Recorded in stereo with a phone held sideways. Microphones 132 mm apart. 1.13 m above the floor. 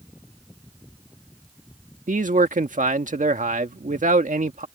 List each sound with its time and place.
2.1 s a man speaking: 80° right